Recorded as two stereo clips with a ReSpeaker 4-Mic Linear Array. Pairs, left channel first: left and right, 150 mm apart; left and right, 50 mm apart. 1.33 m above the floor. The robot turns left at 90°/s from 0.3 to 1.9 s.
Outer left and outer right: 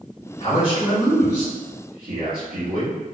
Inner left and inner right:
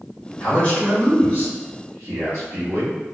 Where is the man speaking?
55° left, 1.5 m; by 3.0 s 80° right, 1.5 m.